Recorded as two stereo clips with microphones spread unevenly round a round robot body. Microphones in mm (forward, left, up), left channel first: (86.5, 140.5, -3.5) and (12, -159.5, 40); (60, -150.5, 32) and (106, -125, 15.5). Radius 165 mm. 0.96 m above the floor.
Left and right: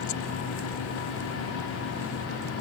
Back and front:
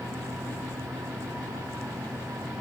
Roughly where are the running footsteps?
No running footsteps in this recording.